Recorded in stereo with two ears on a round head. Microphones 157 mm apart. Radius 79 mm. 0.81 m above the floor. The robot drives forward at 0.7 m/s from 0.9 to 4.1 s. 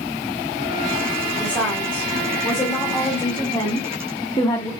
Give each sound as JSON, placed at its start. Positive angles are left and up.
{"t": 1.4, "sound": "a woman speaking", "side_deg": 10, "distance_m": 3.5}